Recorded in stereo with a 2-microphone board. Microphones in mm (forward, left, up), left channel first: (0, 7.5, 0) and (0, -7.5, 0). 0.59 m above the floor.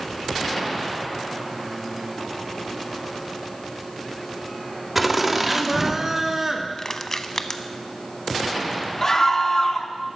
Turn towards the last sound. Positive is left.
turn(degrees=35)  # may be behind; listen again after turning